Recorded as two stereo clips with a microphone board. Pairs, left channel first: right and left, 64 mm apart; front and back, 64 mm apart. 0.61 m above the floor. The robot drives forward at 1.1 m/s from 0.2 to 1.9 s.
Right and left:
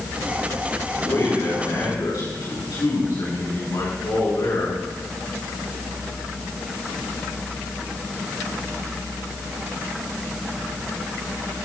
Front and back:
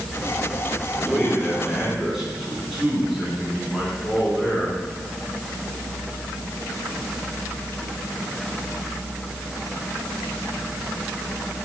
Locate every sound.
0.9 s a man speaking: 80° right, 5 m; by 4.8 s 95° right, 5 m